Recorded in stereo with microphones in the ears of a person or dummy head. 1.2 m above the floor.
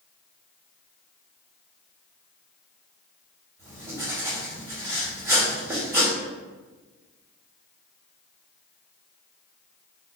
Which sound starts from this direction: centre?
Writing, at 3.6 s.